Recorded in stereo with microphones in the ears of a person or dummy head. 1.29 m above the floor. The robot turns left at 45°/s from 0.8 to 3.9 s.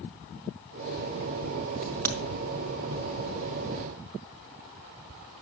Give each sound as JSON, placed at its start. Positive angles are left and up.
{"t": 1.8, "sound": "a crack", "side_deg": 5, "distance_m": 1.6}